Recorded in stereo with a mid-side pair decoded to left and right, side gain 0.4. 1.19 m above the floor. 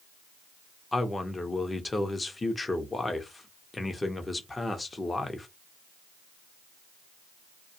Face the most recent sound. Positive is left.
turn(degrees=25)